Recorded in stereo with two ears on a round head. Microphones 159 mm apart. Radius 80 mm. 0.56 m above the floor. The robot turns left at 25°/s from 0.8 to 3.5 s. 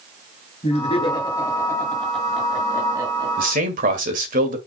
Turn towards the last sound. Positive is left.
turn(degrees=-50)  # may be behind; listen again after turning